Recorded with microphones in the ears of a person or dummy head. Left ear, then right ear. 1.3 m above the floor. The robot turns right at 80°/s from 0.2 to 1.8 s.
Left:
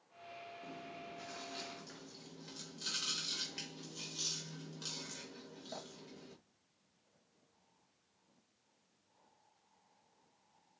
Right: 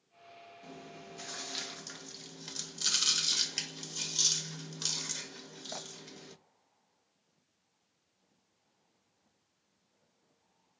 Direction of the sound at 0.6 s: 145° right.